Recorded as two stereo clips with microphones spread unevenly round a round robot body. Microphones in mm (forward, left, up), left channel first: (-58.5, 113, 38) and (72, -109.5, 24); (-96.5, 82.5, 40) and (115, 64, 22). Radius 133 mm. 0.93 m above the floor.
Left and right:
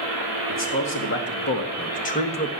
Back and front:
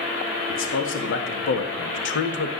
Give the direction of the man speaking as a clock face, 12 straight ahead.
7 o'clock.